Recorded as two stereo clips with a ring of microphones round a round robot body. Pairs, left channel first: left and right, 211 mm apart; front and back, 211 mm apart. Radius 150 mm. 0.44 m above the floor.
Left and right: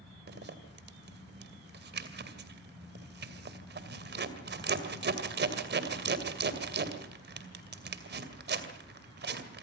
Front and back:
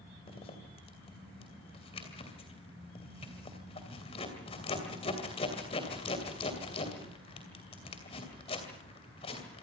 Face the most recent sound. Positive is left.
turn(degrees=-65)